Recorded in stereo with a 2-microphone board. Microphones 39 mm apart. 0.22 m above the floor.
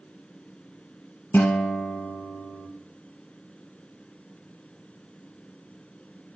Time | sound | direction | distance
1.3 | a guitar | 50° left (ahead or behind) | 1.3 m